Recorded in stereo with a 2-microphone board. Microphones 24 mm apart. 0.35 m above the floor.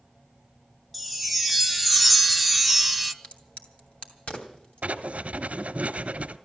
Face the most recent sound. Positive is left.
turn(degrees=-80)